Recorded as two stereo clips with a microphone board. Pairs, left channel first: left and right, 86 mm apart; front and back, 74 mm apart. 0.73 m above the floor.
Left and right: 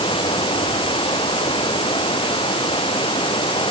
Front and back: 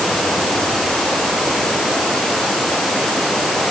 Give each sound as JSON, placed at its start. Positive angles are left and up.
{"t": 0.0, "sound": "running water", "azimuth_deg": 90}